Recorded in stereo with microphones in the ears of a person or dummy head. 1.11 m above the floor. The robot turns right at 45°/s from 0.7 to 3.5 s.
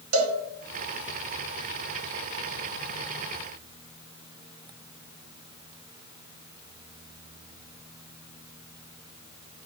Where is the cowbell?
80° right, 1.5 m.